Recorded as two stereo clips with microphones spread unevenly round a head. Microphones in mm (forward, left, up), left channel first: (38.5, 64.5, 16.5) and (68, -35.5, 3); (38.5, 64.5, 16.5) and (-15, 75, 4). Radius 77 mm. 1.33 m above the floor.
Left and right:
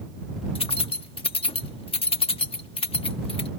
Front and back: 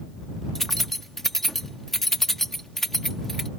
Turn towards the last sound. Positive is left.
turn(degrees=70)